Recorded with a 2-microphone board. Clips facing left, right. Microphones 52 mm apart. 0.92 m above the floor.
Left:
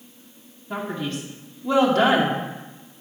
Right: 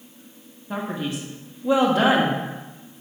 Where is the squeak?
No squeak in this recording.